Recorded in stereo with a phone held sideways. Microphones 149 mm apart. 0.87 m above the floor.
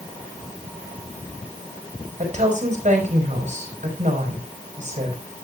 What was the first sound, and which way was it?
A woman speaking, 55° right (ahead or behind).